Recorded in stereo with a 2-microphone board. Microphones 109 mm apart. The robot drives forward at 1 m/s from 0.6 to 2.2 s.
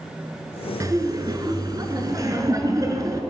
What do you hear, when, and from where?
0.8 s laughter: 30° right (ahead or behind), 1.5 m